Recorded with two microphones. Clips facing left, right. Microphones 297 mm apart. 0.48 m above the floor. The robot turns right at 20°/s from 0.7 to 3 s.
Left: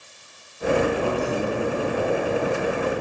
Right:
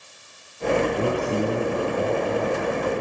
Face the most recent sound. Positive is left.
turn(degrees=5)